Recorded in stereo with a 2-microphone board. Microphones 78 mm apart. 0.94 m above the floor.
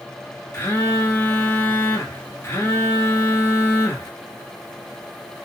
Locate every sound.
0.5 s a phone buzzing: 25° left (ahead or behind), 1.7 m